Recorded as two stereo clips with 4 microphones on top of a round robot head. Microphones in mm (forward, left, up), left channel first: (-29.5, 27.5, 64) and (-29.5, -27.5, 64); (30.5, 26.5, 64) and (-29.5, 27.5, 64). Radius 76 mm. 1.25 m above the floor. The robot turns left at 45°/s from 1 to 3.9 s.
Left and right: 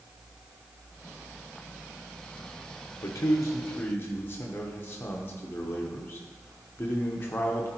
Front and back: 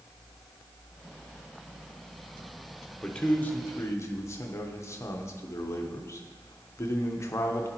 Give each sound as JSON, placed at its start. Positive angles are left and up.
{"t": 3.0, "sound": "a man speaking", "azimuth_deg": 80, "distance_m": 1.0}